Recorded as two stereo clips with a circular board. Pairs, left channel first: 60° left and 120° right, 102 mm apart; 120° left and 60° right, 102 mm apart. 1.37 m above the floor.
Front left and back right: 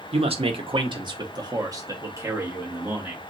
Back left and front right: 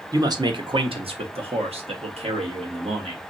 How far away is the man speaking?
About 0.8 m.